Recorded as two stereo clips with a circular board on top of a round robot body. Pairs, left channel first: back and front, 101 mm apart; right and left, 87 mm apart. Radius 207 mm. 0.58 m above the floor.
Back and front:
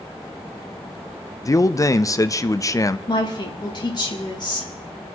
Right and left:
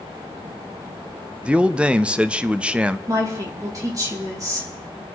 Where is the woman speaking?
135° left, 3 m.